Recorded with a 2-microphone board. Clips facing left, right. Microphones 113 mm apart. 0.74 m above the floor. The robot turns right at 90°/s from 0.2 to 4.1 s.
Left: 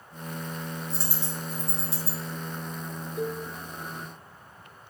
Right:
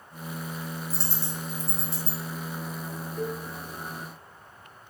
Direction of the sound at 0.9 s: 5° right (ahead or behind).